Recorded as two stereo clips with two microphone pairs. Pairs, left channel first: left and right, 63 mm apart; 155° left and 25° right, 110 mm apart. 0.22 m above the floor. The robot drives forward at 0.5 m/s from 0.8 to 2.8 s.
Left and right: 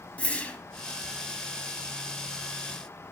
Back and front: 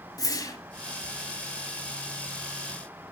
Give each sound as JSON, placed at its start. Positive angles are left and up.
{"t": 0.2, "sound": "a whoosh", "azimuth_deg": 145, "distance_m": 1.5}